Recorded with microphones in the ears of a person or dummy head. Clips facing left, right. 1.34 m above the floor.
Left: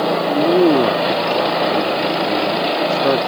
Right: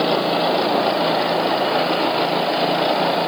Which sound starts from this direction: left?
A man speaking, at 0.2 s.